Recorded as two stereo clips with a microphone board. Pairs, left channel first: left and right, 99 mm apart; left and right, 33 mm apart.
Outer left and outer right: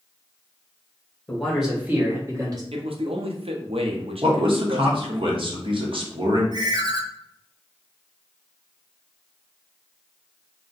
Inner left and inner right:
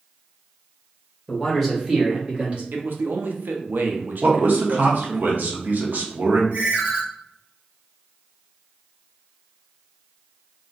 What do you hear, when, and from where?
1.3 s a man speaking: 15° left (ahead or behind), 0.9 m; by 2.6 s 40° right (ahead or behind), 1.3 m
2.7 s a man speaking: 75° right (ahead or behind), 0.7 m
4.2 s a man speaking: 60° right (ahead or behind), 0.9 m
6.5 s a ringtone: 45° right (ahead or behind), 0.9 m